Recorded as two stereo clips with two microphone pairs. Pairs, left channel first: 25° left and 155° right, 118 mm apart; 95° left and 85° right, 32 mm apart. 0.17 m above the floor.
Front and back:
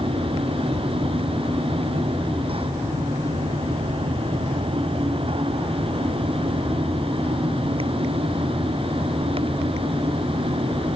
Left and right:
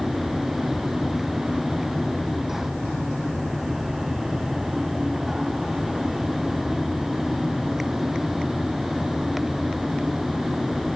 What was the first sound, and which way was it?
Only background noise.